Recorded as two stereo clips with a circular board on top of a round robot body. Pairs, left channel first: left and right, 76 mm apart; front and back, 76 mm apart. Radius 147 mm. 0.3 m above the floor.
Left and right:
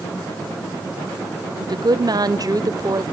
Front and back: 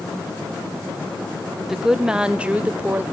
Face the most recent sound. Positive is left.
turn(degrees=-120)